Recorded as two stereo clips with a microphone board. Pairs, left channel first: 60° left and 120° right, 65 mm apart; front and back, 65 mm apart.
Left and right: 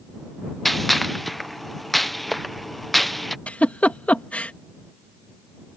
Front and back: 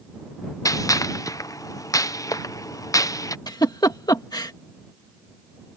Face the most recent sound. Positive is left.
turn(degrees=-10)